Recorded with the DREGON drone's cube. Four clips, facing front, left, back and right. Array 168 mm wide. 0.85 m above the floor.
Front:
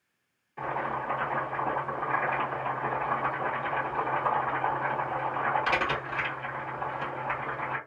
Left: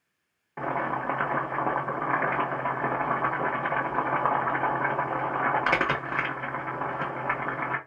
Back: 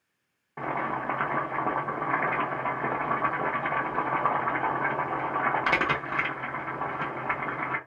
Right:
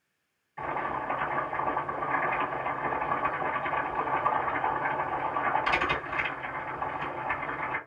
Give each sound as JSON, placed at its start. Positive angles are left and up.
{"t": 0.6, "sound": "boiling", "azimuth_deg": 125, "distance_m": 1.3}